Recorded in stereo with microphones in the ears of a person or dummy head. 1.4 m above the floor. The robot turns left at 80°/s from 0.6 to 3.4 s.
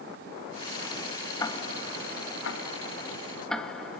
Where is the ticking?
15° left (ahead or behind), 1.3 m; by 4.0 s 5° left (ahead or behind), 1.3 m.